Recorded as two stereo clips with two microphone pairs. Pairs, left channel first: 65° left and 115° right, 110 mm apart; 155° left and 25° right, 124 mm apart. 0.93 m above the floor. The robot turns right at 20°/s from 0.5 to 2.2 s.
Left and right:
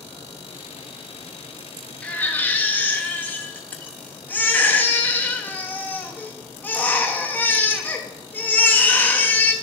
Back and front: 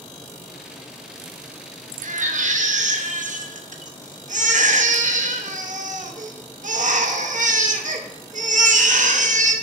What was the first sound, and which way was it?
A baby crying, 15° right.